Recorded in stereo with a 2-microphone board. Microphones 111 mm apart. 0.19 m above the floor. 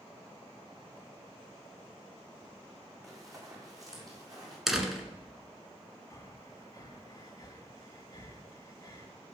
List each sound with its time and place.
3.0 s running footsteps: 30° right (ahead or behind), 5 m; by 4.6 s 35° right (ahead or behind), 7 m
4.7 s a door slam: centre (ahead or behind), 1.5 m
6.1 s breathing: 35° left (ahead or behind), 1.8 m